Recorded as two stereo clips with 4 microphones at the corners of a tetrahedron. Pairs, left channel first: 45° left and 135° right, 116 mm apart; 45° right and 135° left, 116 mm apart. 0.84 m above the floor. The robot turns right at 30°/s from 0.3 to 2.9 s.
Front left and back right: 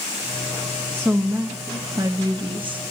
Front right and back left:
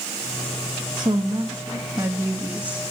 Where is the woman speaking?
155° left, 0.9 m; by 2.8 s 145° right, 0.9 m.